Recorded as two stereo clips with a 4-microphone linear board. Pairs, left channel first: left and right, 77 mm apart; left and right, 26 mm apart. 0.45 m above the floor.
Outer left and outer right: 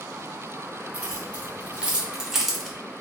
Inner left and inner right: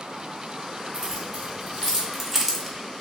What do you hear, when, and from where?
0.9 s keys jangling: 20° right (ahead or behind), 1.4 m; by 2.8 s 5° left (ahead or behind), 0.6 m